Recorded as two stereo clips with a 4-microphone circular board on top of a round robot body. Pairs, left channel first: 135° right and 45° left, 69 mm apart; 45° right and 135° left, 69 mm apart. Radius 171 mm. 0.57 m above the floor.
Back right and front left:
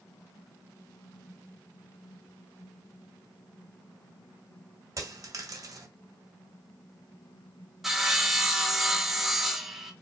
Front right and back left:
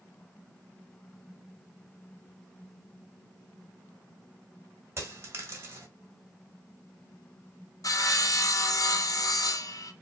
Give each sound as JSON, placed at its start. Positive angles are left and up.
{"t": 5.0, "sound": "a dropped coin", "azimuth_deg": 80, "distance_m": 1.6}
{"t": 7.8, "sound": "sawing", "azimuth_deg": -40, "distance_m": 1.2}